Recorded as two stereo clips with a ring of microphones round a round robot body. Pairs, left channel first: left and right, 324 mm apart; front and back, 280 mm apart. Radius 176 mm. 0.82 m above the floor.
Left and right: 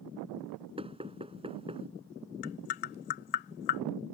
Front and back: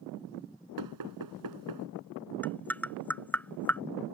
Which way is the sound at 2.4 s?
85° left.